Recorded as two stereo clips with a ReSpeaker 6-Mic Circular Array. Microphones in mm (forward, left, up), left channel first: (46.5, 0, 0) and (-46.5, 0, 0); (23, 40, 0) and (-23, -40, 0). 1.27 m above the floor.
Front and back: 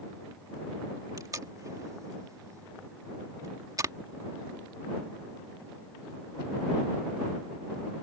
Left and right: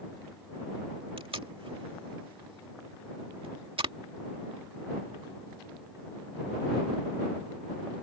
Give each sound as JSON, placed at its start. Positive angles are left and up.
{"t": 1.2, "sound": "tape being pulled", "azimuth_deg": -130}